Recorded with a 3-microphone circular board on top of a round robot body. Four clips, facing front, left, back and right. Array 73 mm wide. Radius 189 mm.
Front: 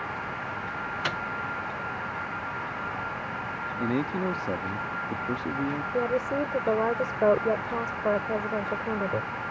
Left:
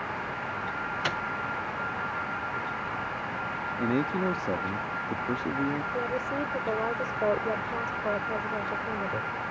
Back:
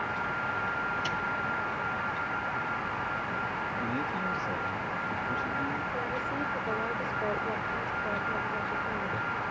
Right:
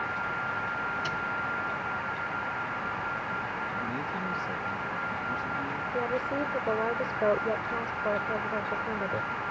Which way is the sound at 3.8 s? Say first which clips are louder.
Left 6 dB, front 8 dB; 40° left.